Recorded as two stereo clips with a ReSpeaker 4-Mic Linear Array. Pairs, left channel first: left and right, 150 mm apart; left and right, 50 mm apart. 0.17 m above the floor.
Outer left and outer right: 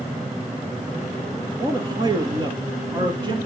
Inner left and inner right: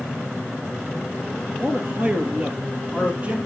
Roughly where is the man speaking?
Right.